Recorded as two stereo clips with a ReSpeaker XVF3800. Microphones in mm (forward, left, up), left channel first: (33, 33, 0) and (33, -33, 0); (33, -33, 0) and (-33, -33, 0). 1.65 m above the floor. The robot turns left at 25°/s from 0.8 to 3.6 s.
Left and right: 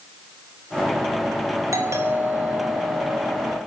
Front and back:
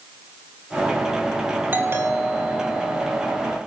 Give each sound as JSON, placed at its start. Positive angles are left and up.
{"t": 1.7, "sound": "a doorbell", "azimuth_deg": -120, "distance_m": 3.5}